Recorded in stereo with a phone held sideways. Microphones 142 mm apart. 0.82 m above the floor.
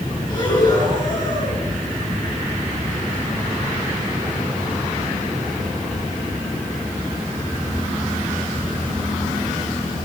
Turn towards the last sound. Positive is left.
turn(degrees=30)  # may be behind; listen again after turning